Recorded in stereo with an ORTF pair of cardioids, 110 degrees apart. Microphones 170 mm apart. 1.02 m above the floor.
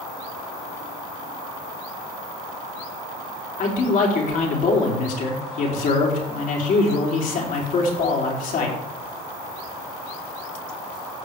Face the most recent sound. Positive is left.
turn(degrees=55)